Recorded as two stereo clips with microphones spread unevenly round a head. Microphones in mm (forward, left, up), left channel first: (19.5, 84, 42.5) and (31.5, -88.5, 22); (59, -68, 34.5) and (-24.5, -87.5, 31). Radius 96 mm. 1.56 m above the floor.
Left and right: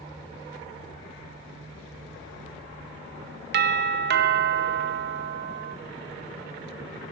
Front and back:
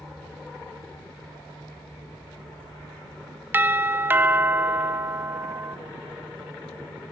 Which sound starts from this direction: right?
A doorbell, at 3.5 s.